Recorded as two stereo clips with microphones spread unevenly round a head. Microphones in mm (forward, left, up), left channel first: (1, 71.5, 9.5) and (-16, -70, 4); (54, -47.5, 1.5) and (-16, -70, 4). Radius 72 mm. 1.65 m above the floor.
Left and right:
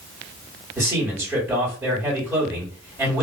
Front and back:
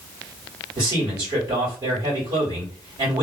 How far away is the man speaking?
About 1.5 m.